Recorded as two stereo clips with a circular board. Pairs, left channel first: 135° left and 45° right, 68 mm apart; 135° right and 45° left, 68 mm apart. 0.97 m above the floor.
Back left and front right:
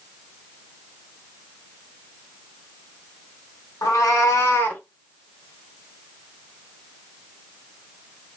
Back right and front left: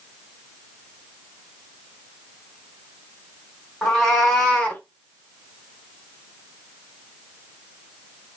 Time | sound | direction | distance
3.8 | a cat meowing | 140° left | 1.2 m